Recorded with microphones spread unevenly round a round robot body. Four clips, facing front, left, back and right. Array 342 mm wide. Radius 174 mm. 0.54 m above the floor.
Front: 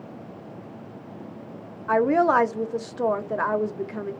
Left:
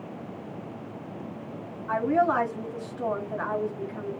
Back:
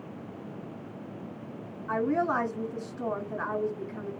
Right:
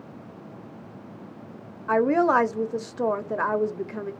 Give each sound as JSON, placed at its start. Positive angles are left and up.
{"t": 1.9, "sound": "a woman speaking", "azimuth_deg": -70, "distance_m": 0.8}